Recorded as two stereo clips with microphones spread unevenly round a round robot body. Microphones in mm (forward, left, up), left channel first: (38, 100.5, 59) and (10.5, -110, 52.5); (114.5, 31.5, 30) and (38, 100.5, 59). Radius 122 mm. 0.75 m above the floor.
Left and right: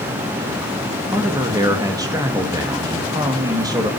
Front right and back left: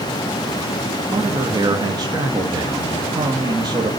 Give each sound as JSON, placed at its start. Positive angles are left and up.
{"t": 1.1, "sound": "a man speaking", "azimuth_deg": -160, "distance_m": 1.3}